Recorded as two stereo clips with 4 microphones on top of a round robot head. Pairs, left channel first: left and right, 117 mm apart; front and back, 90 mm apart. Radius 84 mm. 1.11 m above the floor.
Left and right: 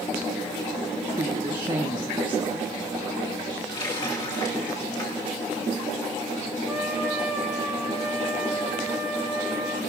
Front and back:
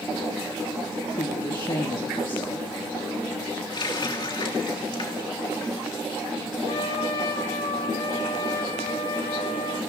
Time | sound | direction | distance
1.2 | a woman speaking | 35° right | 1.3 m
3.7 | a running tap | 30° left | 3 m
6.7 | a trumpet | 10° right | 3.5 m